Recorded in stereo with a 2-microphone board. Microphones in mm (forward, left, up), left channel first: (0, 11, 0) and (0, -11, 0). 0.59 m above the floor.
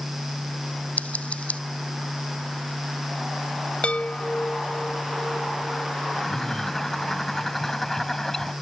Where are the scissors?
85° left.